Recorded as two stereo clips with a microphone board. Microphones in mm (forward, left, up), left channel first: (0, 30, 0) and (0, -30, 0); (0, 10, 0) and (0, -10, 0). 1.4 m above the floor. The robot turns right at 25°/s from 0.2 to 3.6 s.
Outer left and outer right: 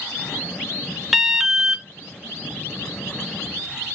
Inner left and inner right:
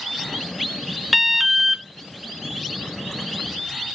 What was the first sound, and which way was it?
An alarm, centre (ahead or behind).